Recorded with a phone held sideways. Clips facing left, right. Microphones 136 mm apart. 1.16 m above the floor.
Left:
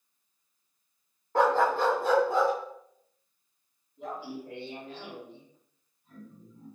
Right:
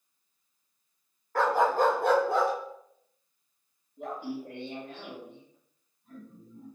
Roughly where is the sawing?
I don't hear sawing.